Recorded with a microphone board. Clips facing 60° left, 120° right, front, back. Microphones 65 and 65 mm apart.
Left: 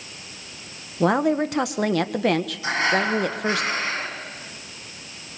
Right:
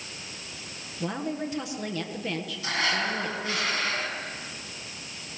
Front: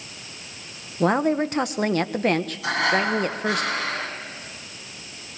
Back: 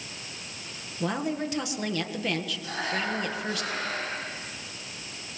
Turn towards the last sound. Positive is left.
turn(degrees=-5)